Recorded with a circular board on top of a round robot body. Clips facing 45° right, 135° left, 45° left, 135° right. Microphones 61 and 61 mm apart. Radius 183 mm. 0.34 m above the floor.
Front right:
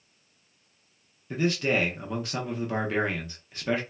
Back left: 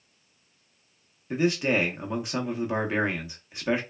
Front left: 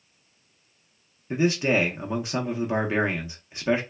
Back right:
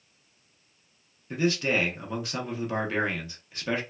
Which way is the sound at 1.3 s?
85° left.